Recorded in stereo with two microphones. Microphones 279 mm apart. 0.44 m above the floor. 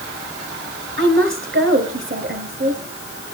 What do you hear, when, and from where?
1.0 s a woman speaking: 40° right (ahead or behind), 2.5 m